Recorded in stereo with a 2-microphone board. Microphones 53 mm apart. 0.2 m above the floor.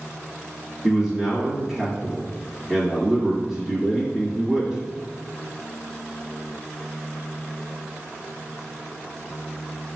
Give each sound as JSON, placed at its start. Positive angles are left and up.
{"t": 0.8, "sound": "a man speaking", "side_deg": -10, "distance_m": 1.1}